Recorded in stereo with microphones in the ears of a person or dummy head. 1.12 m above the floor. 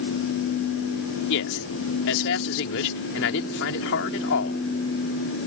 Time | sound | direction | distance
1.3 | a man speaking | 75° left (ahead or behind) | ?